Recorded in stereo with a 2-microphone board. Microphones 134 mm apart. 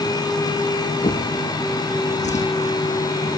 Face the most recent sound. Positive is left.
turn(degrees=60)  # may be behind; listen again after turning